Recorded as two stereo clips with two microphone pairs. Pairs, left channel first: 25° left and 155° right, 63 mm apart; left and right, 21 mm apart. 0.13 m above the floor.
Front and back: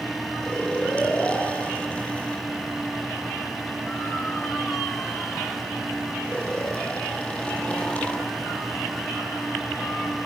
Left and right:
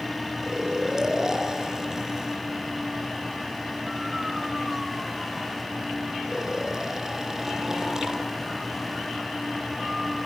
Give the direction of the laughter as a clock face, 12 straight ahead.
I don't hear laughter.